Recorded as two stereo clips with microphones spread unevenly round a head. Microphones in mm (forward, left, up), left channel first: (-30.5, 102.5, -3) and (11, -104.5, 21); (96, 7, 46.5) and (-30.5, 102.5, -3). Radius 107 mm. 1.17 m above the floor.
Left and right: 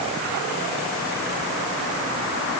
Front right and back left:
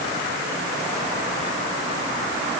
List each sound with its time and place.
Only background noise.